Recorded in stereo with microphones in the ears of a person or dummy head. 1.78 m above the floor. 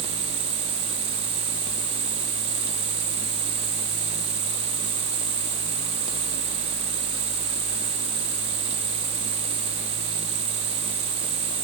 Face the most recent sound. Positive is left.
turn(degrees=-60)  # may be behind; listen again after turning